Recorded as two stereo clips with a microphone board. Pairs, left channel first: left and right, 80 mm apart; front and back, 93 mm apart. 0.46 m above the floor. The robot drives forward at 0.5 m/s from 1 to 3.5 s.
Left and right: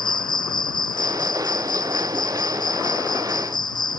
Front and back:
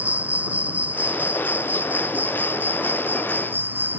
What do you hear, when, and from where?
0.0 s an insect: 105° left; by 4.0 s 110° left